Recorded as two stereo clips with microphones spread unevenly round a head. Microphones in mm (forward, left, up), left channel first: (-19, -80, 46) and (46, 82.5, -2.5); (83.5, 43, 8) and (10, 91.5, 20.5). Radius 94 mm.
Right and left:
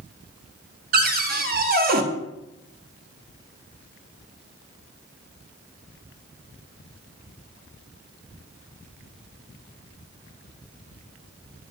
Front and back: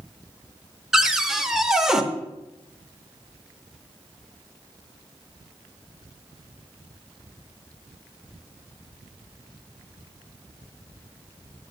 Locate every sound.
0.9 s a cupboard door: 60° left, 0.7 m